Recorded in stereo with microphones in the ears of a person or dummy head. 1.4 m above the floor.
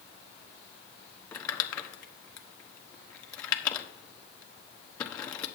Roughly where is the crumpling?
Left.